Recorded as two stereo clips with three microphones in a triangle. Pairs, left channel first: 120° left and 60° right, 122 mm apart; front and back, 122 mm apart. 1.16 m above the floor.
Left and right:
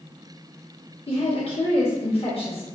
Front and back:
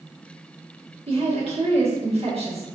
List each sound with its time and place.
1.1 s a woman speaking: 150° left, 1.4 m